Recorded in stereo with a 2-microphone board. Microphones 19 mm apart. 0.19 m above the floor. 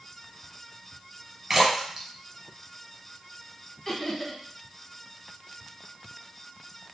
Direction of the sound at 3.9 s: 25° left (ahead or behind).